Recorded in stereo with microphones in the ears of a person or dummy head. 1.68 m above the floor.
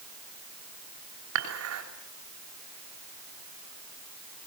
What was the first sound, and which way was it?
Dishes clattering, 75° right (ahead or behind).